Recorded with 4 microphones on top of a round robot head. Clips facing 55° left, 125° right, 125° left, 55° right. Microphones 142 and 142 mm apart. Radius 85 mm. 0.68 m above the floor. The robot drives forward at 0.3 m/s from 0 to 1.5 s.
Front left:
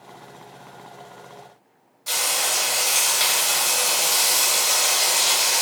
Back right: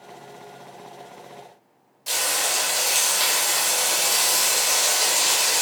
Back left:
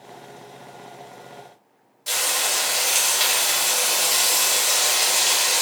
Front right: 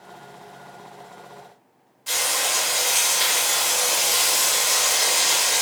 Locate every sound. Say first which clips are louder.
2.1 s frying: even, even; 165° left, 1.5 m